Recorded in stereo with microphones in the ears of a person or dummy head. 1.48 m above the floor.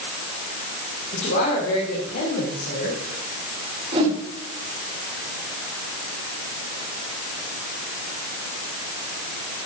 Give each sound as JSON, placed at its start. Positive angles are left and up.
{"t": 1.1, "sound": "a woman speaking", "side_deg": 50, "distance_m": 3.0}
{"t": 3.9, "sound": "a whoosh", "side_deg": -30, "distance_m": 3.5}